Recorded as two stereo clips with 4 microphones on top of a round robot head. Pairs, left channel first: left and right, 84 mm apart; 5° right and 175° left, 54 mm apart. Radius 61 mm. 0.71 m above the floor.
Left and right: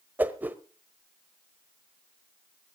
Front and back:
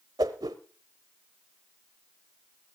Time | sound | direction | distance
0.2 | a whoosh | 160° right | 0.9 m